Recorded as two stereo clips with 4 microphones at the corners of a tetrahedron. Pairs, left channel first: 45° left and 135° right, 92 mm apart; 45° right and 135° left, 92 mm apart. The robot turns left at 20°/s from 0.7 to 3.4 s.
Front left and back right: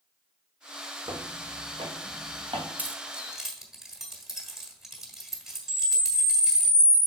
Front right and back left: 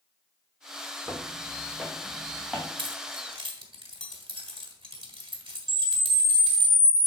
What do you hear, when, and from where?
1.1 s footsteps: 125° right, 1.9 m; by 2.7 s 145° right, 3 m
2.8 s keys jangling: 150° left, 1.7 m; by 6.7 s 140° left, 1.7 m
5.7 s a camera shutter: 125° left, 1.3 m